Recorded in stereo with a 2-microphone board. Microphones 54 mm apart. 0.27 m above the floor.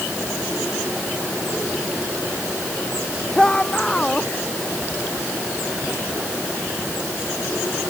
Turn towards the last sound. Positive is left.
turn(degrees=10)  # may be behind; listen again after turning